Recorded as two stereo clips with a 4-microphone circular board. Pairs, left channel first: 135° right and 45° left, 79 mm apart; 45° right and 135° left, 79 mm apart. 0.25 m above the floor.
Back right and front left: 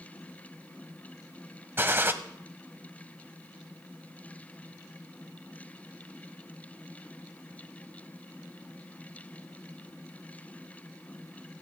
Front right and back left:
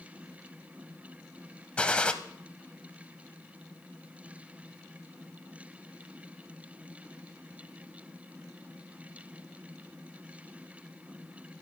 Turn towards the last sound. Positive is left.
turn(degrees=20)